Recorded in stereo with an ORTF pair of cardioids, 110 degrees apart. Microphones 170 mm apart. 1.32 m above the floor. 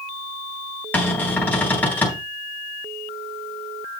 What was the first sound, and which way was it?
A cupboard door, 10° left.